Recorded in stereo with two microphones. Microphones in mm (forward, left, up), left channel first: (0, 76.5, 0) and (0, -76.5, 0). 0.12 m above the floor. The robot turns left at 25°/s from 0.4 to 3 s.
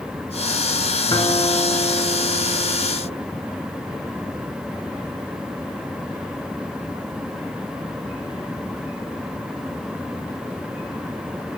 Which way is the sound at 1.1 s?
125° left.